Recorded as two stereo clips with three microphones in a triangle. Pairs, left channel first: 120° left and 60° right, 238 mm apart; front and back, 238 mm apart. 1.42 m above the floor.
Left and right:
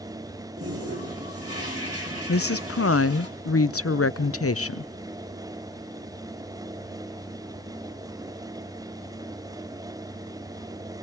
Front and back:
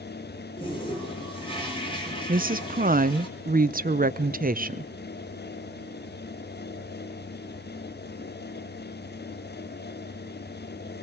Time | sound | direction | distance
0.6 | a toilet flushing | 70° right | 4.5 m
2.3 | a woman speaking | 130° left | 0.6 m